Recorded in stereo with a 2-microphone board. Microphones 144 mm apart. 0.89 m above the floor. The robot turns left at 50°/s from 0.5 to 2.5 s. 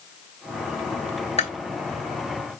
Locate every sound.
1.4 s chewing: 45° left (ahead or behind), 2 m; by 1.5 s 50° left (ahead or behind), 2 m